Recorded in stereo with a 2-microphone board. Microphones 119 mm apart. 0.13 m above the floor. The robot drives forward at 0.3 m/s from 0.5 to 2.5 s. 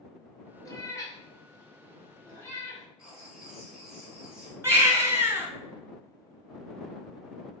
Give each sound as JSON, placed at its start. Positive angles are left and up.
{"t": 0.7, "sound": "a cat meowing", "side_deg": 30, "distance_m": 0.8}
{"t": 3.0, "sound": "writing", "side_deg": -5, "distance_m": 0.9}
{"t": 4.6, "sound": "a baby crying", "side_deg": -25, "distance_m": 0.7}